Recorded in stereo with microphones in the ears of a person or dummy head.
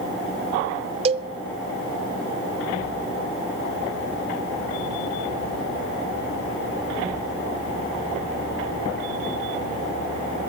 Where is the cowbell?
35° right (ahead or behind), 0.6 m.